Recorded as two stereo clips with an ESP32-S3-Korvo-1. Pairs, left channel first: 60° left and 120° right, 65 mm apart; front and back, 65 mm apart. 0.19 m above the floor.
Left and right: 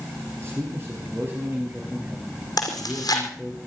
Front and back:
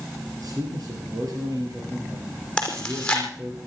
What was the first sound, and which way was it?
A man speaking, 165° right.